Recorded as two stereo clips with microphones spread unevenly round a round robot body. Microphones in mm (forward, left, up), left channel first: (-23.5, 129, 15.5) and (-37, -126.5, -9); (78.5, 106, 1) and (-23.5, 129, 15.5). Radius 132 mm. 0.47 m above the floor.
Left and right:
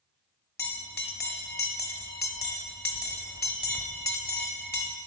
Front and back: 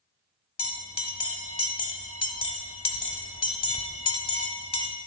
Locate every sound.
0.6 s a bell: 5° left, 1.2 m